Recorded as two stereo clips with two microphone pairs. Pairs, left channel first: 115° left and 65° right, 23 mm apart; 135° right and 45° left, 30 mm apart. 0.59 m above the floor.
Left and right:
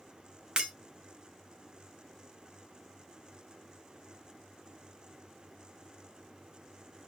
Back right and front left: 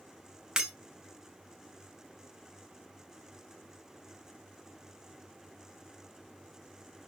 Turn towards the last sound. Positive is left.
turn(degrees=-25)